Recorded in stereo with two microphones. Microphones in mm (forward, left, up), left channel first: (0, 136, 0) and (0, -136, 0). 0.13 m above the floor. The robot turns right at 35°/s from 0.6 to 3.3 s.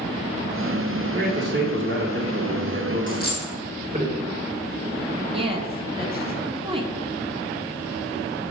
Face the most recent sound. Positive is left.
turn(degrees=-20)  # may be behind; listen again after turning